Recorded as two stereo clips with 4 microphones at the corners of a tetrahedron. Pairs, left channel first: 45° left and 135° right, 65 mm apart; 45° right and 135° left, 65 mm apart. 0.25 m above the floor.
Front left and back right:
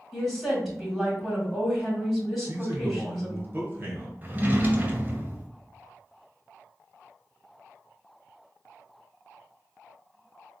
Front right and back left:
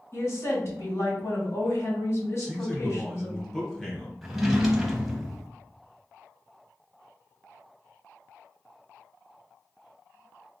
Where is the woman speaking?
45° right, 1.4 m.